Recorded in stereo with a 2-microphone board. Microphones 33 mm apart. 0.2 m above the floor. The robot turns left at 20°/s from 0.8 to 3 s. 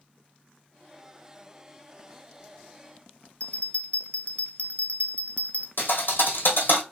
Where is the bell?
40° left (ahead or behind), 0.6 m.